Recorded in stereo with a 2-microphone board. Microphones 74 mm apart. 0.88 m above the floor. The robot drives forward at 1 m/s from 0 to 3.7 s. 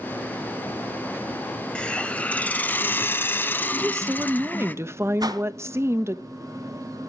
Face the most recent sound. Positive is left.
turn(degrees=-60)  # may be behind; listen again after turning